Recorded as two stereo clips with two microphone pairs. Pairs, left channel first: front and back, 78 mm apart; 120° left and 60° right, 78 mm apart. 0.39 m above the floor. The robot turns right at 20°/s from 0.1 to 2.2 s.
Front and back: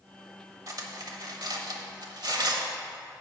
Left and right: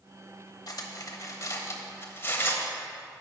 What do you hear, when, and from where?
0.7 s cutlery clinking: 150° left, 0.8 m; by 2.7 s straight behind, 0.8 m